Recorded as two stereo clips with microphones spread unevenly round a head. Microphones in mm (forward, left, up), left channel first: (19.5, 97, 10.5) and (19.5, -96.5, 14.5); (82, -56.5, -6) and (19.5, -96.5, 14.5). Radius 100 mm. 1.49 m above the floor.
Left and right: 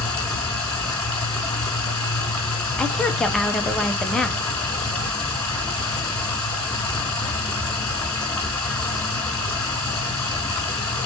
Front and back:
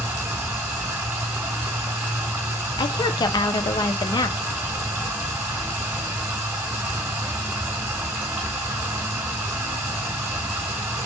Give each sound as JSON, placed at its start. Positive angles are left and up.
{"t": 0.0, "sound": "running water", "azimuth_deg": 175, "distance_m": 1.2}
{"t": 2.8, "sound": "a woman speaking", "azimuth_deg": 5, "distance_m": 0.5}